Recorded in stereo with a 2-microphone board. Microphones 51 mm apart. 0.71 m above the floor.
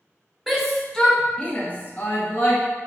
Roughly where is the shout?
Centre.